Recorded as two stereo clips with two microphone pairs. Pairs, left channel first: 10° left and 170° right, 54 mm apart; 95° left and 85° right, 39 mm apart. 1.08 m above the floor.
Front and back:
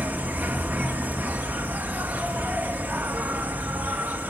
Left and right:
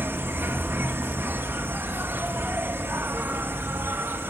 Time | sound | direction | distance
0.0 | an insect | 110° right | 0.8 m